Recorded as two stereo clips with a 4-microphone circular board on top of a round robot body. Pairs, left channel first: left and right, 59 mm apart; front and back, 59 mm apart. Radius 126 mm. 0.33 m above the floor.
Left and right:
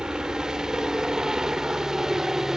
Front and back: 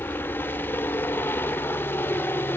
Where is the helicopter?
20° right; by 2.6 s 15° right.